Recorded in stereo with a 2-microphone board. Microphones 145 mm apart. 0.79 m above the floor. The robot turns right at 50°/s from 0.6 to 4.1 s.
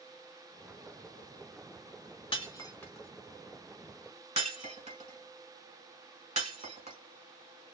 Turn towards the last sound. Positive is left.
turn(degrees=-55)  # may be behind; listen again after turning